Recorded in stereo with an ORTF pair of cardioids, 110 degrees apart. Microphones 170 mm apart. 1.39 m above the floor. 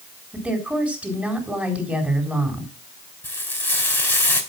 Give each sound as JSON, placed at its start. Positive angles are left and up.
{"t": 0.3, "sound": "a woman speaking", "azimuth_deg": -5, "distance_m": 4.0}
{"t": 3.2, "sound": "frying", "azimuth_deg": 10, "distance_m": 3.0}